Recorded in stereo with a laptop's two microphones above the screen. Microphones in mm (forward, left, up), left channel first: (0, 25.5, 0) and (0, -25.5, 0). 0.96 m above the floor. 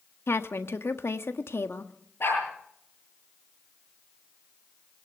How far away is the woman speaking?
About 1.6 m.